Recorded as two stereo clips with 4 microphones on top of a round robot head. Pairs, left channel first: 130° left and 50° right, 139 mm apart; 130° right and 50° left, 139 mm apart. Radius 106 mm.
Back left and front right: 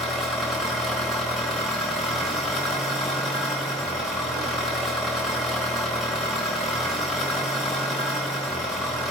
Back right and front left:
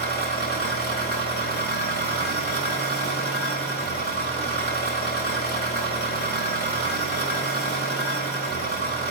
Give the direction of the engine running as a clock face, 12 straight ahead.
5 o'clock.